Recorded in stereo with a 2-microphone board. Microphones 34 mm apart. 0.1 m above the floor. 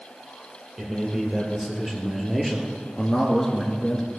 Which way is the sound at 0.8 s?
15° right (ahead or behind).